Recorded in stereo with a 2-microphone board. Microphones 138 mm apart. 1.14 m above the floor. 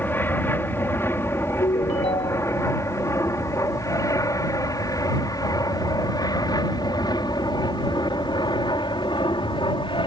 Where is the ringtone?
50° left (ahead or behind).